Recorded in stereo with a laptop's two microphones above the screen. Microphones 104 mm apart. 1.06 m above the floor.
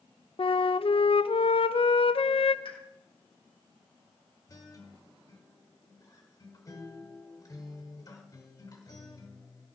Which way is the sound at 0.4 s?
60° left (ahead or behind).